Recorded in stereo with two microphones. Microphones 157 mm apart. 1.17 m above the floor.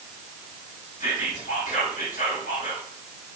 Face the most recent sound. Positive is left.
turn(degrees=65)  # may be behind; listen again after turning